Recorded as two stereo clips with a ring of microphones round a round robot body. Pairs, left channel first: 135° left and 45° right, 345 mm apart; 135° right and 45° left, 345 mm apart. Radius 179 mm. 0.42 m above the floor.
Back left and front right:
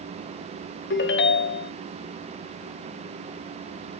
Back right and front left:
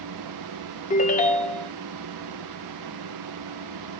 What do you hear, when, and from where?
0.9 s a ringtone: 170° left, 0.7 m